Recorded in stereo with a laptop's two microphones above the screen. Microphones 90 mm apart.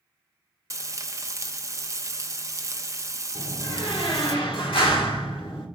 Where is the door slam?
80° left, 1.6 m.